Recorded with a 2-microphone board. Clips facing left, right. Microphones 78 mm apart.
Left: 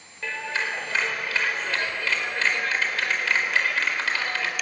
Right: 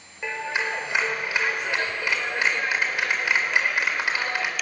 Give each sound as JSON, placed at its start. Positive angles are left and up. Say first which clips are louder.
{"t": 0.2, "sound": "a clap", "louder": "right 2 dB", "side_deg": -15, "distance_m": 3.0}